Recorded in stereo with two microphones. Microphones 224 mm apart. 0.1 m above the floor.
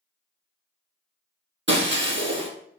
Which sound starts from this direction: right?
Breaking glass, at 1.7 s.